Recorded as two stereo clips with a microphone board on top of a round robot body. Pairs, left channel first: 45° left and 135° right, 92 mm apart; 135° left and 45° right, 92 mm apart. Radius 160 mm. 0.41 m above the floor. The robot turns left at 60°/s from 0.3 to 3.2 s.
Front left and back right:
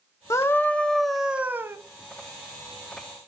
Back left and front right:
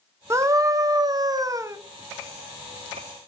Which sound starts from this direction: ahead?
A scream, at 0.3 s.